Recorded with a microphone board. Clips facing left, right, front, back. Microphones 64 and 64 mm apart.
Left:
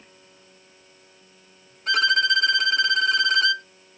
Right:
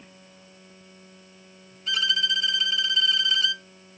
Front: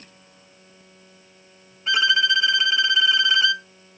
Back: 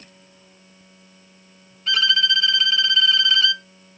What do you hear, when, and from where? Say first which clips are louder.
1.9 s a violin: left 7 dB, front 1 dB; 65° left